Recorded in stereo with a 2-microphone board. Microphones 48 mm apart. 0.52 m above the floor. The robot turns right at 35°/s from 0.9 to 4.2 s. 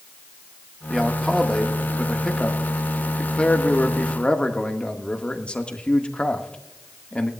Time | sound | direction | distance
0.9 | a man speaking | centre (ahead or behind) | 1.0 m